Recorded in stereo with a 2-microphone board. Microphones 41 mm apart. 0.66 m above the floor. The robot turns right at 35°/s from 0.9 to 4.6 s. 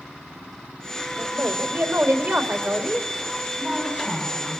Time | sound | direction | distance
1.2 | a woman speaking | 100° right | 2.5 m
3.6 | a woman speaking | 25° right | 7 m